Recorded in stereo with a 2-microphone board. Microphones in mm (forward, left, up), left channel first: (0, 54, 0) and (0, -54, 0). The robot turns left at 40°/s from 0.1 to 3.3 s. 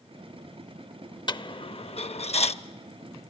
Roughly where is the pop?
No pop in this recording.